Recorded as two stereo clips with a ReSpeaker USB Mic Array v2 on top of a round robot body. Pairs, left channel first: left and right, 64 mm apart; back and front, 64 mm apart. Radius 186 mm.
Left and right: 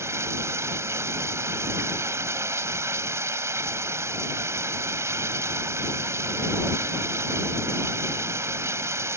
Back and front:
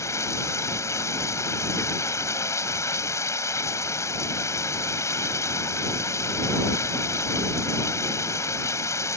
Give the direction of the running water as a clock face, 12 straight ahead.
5 o'clock.